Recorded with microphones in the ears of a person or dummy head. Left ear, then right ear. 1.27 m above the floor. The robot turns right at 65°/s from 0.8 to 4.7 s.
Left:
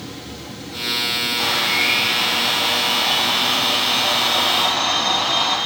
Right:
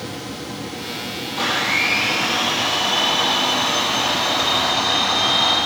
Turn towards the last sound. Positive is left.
turn(degrees=55)